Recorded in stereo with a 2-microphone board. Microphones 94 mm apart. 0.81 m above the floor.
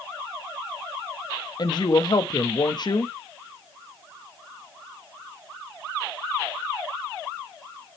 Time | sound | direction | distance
1.6 | a woman speaking | 50° left (ahead or behind) | 0.9 m